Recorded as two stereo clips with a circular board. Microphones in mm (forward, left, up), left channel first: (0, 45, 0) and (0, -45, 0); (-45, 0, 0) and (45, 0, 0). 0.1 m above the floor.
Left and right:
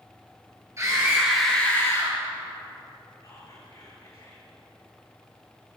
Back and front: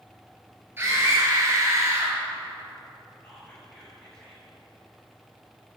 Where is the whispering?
105° left, 2 m.